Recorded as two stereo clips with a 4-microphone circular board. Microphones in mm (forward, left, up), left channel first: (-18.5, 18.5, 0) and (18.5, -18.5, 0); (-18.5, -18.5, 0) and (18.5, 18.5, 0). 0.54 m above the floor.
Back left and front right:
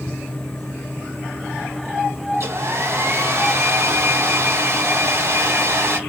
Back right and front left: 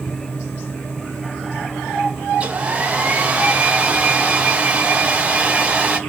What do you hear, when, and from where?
2.3 s a hair dryer: 15° right, 0.7 m